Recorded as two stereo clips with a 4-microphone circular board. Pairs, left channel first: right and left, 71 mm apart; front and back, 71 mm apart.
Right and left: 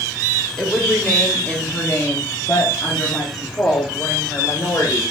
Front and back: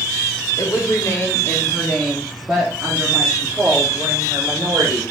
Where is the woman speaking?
Straight ahead, 1.3 m; by 5.0 s 135° right, 2.5 m.